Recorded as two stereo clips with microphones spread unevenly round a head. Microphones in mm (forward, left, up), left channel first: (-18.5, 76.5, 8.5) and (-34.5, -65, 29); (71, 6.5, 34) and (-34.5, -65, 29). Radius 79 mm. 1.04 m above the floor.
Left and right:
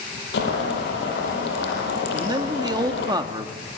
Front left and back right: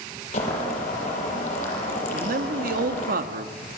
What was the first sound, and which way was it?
Boiling, 80° left.